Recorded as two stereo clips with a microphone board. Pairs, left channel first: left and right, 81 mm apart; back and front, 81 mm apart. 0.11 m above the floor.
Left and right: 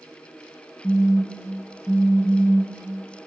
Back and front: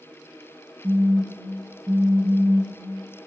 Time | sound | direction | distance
0.8 | a phone buzzing | 10° left | 0.6 m